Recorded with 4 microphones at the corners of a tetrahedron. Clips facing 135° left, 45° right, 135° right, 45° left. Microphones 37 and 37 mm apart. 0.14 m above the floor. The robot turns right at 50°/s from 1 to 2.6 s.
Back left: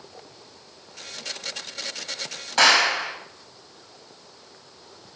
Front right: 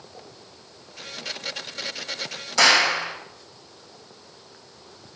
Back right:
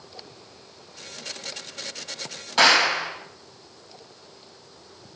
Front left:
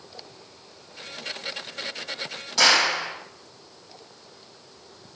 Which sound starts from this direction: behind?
A clap, at 2.6 s.